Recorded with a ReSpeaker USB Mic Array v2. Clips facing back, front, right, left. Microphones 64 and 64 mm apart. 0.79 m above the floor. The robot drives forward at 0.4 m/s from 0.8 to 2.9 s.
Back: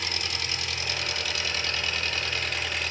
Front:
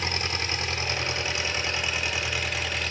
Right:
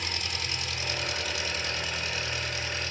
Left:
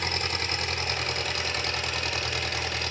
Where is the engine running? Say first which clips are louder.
Front 3 dB, left 5 dB; 55° left, 1.5 m; by 2.9 s 90° left, 1.2 m.